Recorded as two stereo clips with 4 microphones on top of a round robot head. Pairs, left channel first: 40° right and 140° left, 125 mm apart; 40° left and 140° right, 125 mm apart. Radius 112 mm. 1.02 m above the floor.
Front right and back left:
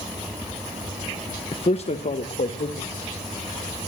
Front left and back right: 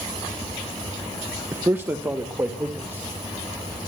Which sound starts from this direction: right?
A man speaking, at 1.5 s.